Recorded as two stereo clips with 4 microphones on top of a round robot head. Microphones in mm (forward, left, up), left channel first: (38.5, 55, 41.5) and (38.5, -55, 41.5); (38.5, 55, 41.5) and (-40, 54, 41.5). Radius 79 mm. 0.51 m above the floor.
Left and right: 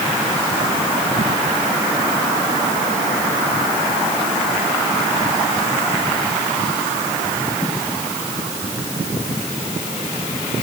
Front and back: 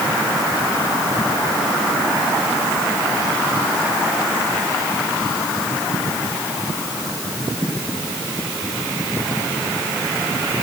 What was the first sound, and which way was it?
Only background noise.